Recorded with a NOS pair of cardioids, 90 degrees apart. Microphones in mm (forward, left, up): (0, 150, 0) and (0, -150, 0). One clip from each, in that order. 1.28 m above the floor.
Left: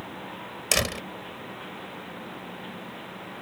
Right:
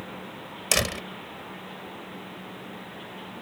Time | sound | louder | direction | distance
0.7 | a door slam | even | straight ahead | ?